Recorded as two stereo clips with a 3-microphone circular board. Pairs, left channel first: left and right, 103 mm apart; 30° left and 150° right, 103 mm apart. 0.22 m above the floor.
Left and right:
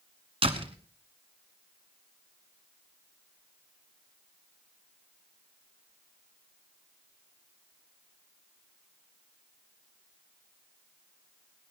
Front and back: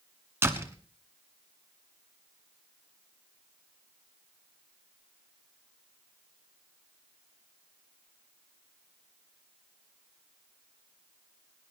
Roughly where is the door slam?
Right.